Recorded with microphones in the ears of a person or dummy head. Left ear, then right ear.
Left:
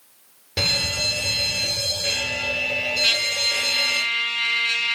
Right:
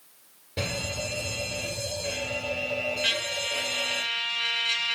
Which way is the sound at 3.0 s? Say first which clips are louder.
Left 8 dB; 10° left (ahead or behind).